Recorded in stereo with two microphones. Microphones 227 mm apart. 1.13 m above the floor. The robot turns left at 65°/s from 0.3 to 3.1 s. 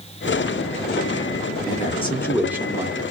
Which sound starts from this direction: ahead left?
A man speaking, at 1.7 s.